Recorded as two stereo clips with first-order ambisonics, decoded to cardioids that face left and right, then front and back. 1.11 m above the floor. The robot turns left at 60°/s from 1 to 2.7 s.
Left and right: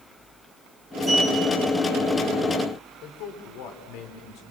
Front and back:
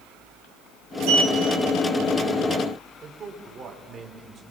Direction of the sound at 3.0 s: 110° left.